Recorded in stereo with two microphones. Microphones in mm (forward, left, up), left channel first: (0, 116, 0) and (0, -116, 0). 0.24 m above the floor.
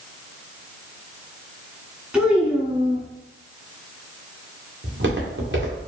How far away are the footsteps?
About 1.9 m.